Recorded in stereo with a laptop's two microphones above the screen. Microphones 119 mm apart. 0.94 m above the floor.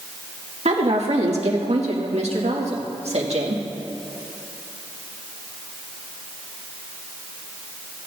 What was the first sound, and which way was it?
A woman speaking, 65° right (ahead or behind).